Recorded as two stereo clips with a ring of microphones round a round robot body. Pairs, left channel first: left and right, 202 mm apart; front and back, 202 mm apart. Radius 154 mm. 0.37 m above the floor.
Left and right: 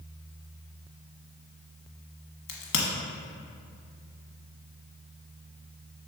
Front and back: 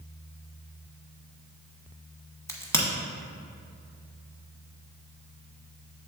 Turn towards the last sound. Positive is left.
turn(degrees=75)